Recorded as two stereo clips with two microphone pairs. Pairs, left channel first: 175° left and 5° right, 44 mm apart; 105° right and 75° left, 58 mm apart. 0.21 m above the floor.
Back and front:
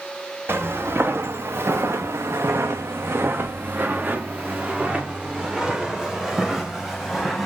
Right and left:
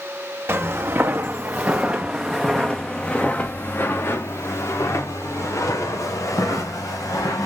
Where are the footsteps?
25° left, 1.9 m; by 7.5 s 100° right, 3 m.